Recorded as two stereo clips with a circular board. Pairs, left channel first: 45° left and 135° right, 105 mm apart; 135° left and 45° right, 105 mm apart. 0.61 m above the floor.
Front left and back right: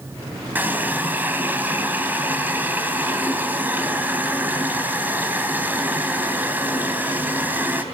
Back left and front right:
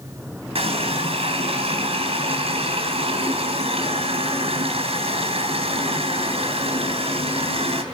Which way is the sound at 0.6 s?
60° right.